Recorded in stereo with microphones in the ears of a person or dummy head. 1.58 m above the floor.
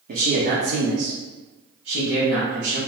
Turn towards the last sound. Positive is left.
turn(degrees=-75)  # may be behind; listen again after turning